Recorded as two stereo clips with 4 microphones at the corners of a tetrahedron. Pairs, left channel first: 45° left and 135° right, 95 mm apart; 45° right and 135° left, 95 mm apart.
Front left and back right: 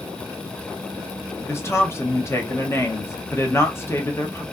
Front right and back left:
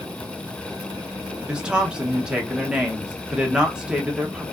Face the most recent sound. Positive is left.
turn(degrees=65)